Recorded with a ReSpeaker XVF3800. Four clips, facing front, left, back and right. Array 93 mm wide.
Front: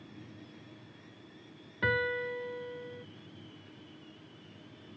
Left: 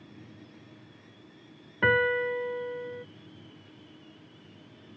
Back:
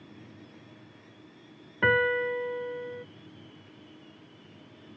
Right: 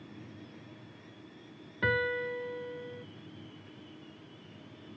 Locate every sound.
1.8 s a piano: 135° left